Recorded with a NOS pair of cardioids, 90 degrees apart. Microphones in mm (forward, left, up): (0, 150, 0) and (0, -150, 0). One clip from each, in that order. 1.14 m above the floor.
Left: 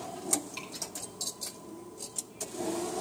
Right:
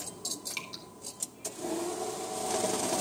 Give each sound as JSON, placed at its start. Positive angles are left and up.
{"t": 0.5, "sound": "dripping", "azimuth_deg": -65, "distance_m": 3.0}